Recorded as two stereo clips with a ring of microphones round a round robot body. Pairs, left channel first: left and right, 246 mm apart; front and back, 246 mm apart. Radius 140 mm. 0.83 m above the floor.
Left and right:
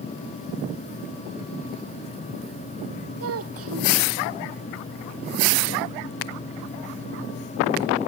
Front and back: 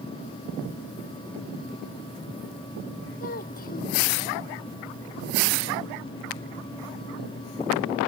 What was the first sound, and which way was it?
A child speaking, 60° right.